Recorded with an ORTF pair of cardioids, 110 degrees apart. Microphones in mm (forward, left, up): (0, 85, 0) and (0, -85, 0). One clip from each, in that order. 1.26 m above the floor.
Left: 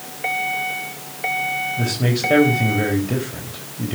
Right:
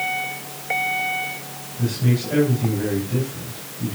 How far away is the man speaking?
About 3.5 m.